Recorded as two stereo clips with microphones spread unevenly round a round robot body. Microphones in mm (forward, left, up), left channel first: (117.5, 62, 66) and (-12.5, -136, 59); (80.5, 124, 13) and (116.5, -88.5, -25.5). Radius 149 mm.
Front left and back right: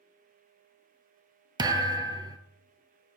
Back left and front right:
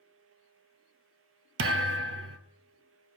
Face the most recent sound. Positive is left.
turn(degrees=-50)